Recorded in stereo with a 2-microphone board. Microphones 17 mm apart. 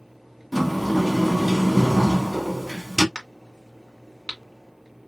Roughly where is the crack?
Left.